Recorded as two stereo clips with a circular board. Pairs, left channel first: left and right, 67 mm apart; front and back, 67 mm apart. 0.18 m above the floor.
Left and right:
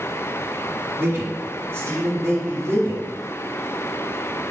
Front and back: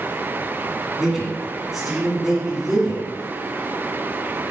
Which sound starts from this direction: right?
A man speaking, at 1.0 s.